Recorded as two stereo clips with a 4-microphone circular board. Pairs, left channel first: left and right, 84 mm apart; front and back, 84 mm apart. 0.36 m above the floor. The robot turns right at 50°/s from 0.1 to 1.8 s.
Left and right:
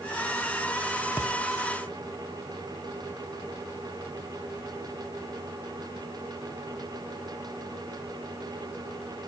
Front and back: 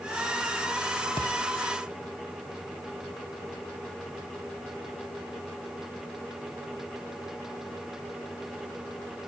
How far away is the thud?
About 2.5 m.